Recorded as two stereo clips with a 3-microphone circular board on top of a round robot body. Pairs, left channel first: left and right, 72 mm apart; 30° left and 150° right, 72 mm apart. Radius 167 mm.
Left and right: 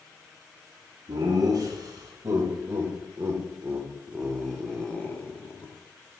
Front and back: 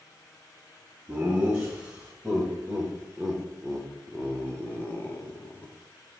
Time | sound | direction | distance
1.1 | laughter | 75° right | 2 m